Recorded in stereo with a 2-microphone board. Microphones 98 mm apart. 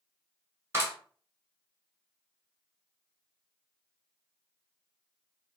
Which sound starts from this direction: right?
A clap, at 0.7 s.